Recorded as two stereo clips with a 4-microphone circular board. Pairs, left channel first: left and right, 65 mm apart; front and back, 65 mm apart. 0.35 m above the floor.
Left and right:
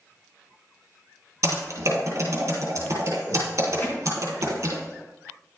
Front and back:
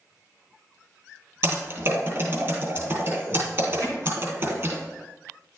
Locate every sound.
1.4 s typing on a keyboard: 135° right, 3 m
3.8 s hammering: 150° left, 3 m